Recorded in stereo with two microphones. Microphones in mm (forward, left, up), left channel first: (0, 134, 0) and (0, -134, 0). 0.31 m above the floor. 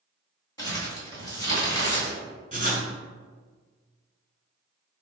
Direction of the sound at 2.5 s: 30° right (ahead or behind).